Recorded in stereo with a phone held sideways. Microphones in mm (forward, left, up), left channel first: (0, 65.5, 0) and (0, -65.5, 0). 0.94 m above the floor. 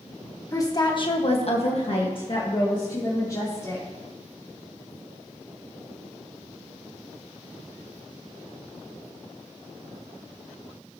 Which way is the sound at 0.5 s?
25° left (ahead or behind).